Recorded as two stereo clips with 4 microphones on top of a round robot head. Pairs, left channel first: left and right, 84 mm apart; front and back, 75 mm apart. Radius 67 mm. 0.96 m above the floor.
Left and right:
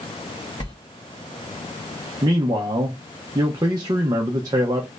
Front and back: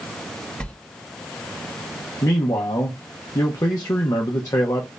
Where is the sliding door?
70° left, 1.8 m.